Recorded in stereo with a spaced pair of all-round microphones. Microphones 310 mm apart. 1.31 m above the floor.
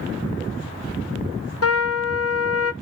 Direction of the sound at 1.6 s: 50° left (ahead or behind).